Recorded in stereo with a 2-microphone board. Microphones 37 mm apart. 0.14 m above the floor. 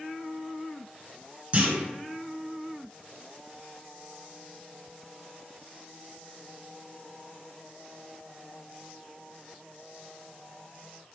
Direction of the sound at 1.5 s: 35° right (ahead or behind).